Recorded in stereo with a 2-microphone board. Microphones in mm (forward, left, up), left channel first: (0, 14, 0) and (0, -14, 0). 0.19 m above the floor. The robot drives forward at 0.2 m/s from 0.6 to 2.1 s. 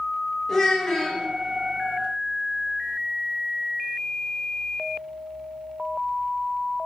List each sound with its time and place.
0.5 s a child speaking: 15° left (ahead or behind), 0.7 m